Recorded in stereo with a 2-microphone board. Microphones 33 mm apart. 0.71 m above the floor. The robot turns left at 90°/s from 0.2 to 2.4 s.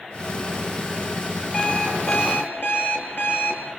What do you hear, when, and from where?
1.5 s an alarm clock: 170° left, 8.5 m; by 3.6 s 95° left, 8.5 m